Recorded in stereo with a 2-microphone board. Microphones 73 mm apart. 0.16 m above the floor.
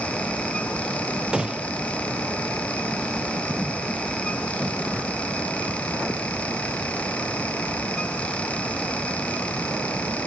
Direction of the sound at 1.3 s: 10° right (ahead or behind).